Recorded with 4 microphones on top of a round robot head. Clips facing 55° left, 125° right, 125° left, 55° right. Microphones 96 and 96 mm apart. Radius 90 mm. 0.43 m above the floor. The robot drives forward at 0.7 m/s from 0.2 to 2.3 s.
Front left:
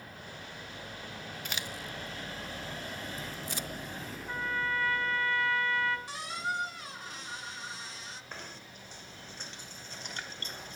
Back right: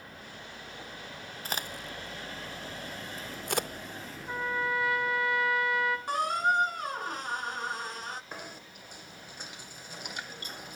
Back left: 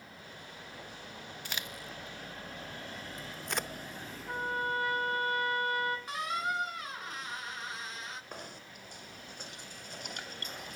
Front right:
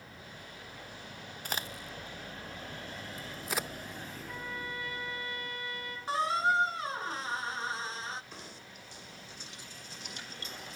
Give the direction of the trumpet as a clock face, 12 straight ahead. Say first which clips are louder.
Back right 3 dB, back left 9 dB; 7 o'clock.